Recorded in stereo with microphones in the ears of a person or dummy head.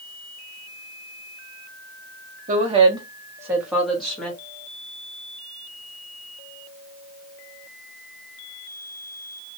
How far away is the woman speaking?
About 0.9 m.